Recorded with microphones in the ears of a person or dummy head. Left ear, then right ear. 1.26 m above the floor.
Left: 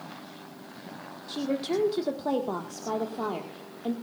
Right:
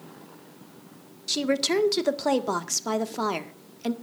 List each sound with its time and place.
1.3 s a woman speaking: 70° right (ahead or behind), 1.7 m